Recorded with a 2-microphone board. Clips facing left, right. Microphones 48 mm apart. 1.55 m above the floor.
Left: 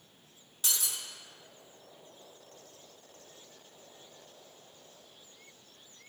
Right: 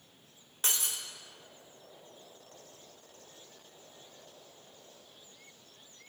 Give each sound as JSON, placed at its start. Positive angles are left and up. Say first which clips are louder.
{"t": 0.6, "sound": "breaking glass", "louder": "right 1 dB", "side_deg": -40, "distance_m": 1.0}